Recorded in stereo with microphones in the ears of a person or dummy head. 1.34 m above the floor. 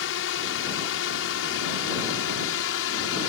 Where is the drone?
70° left (ahead or behind).